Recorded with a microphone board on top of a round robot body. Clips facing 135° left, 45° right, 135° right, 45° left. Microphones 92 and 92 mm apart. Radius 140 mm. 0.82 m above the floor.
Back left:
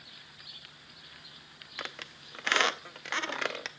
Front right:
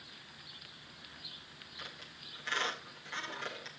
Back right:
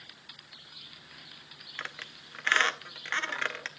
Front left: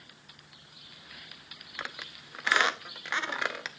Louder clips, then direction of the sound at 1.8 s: Back left 9 dB, front left 1 dB; 125° left.